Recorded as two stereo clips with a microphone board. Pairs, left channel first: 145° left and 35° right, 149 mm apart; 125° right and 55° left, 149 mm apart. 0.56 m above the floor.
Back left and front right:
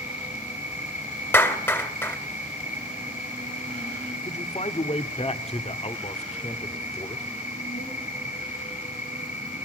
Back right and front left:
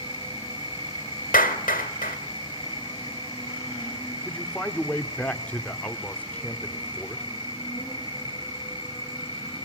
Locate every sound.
0.0 s an insect: straight behind, 7.5 m
1.3 s a clap: 140° right, 1.7 m
4.2 s a man speaking: 160° left, 1.3 m